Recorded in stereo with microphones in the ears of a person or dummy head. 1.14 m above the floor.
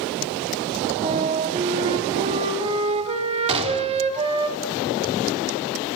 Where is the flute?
30° right (ahead or behind), 1.8 m.